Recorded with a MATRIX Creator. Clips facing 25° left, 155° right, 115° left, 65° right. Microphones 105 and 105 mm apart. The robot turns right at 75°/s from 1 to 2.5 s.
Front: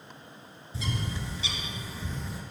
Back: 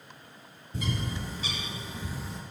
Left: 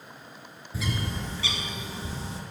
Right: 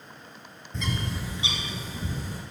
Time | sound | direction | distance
0.7 | a bird | 165° right | 1.7 m